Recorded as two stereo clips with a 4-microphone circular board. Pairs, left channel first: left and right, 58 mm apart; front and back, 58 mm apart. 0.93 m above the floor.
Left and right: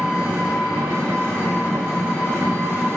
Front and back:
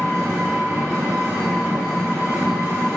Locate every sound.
0.0 s an engine running: 130° right, 1.4 m